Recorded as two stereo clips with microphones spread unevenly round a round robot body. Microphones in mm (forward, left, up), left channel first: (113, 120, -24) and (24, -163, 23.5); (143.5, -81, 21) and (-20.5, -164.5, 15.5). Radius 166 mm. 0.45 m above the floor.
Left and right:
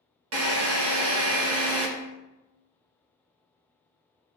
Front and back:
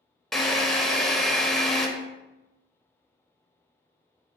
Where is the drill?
60° right, 1.0 m.